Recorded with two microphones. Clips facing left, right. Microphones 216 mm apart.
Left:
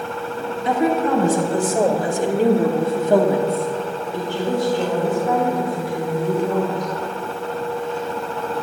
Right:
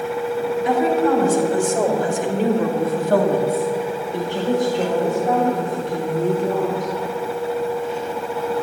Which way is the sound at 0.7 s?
35° left (ahead or behind).